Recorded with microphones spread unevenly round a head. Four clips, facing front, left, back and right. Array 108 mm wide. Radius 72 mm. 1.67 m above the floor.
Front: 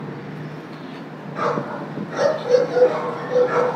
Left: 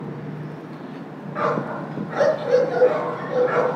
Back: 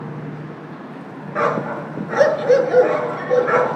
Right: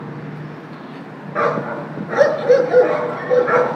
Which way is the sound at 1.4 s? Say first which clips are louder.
Right 4 dB, back 3 dB; 115° right.